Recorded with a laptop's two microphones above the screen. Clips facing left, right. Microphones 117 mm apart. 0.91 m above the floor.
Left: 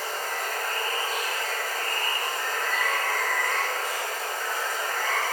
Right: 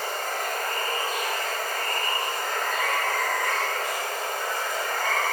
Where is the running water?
60° right (ahead or behind), 1.7 m.